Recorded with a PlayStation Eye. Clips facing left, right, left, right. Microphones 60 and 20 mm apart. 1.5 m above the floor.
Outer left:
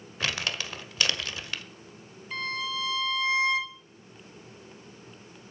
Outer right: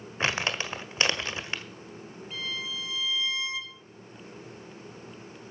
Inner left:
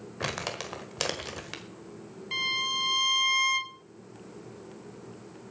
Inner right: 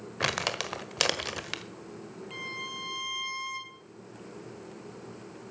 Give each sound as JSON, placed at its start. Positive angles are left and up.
{"t": 0.2, "sound": "crumpling", "side_deg": -25, "distance_m": 1.3}
{"t": 2.3, "sound": "a violin", "side_deg": 60, "distance_m": 1.0}